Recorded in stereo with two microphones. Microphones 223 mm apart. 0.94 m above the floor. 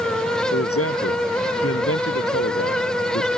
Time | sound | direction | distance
0.5 | a man speaking | 90° left | ?